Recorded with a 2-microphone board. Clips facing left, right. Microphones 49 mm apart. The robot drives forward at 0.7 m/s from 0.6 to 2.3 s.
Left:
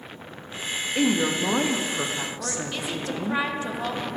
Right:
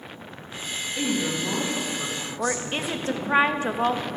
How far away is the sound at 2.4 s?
About 0.6 m.